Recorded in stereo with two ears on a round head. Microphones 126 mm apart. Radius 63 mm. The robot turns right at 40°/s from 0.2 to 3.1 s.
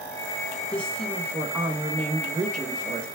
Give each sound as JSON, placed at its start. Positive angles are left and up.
{"t": 0.7, "sound": "a woman speaking", "azimuth_deg": 160, "distance_m": 1.8}